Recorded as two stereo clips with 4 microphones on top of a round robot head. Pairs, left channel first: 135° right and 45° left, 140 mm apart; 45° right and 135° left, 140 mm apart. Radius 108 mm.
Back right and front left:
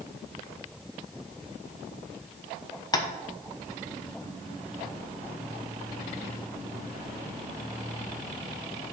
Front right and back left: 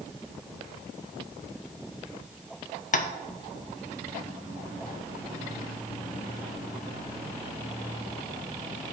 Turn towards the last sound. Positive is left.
turn(degrees=-70)